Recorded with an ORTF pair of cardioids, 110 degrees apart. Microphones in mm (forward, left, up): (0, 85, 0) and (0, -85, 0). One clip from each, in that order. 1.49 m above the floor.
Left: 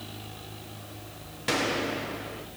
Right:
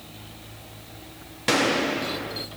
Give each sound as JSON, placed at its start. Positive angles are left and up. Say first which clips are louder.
{"t": 1.5, "sound": "a gunshot", "louder": "right 6 dB", "azimuth_deg": -25, "distance_m": 0.7}